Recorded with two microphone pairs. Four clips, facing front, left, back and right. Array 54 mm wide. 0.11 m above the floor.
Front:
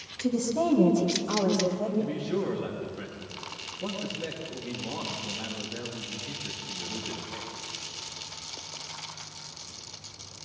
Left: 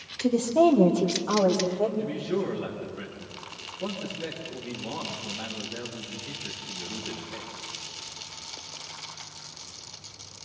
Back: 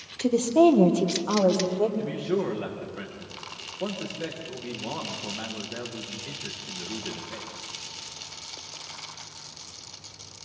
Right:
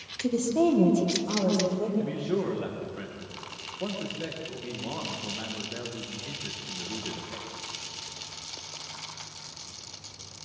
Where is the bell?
I don't hear a bell.